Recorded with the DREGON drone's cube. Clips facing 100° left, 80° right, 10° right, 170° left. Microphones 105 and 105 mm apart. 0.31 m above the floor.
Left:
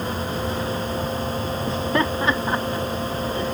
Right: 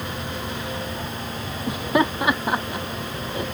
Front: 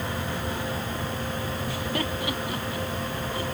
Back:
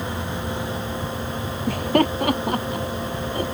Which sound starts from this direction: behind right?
Laughter, at 1.7 s.